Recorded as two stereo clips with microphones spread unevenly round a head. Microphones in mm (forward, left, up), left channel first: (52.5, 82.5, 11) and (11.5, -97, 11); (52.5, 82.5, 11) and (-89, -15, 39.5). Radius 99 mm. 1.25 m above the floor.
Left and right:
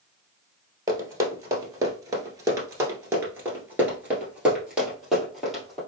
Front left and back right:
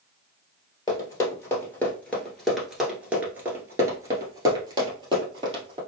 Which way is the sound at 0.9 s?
45° right.